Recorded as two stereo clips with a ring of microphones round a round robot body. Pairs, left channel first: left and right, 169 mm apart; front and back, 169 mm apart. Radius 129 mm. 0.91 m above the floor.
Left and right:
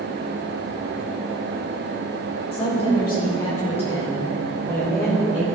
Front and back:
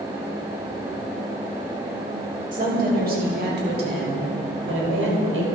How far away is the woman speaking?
About 5 m.